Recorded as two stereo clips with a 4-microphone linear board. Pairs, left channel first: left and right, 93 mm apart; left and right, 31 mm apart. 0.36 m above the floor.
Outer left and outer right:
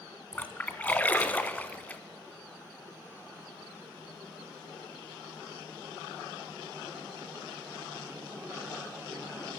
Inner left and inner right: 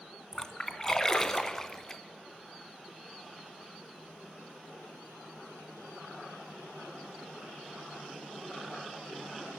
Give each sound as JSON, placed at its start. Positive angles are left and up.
{"t": 0.3, "sound": "a splash", "side_deg": 15, "distance_m": 1.3}